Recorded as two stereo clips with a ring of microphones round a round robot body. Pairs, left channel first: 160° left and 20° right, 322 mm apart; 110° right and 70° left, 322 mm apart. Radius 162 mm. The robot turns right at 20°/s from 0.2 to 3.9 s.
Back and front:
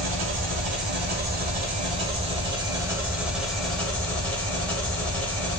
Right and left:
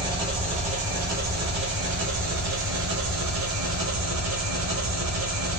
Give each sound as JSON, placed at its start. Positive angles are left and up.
{"t": 0.0, "sound": "an engine running", "azimuth_deg": 0, "distance_m": 1.2}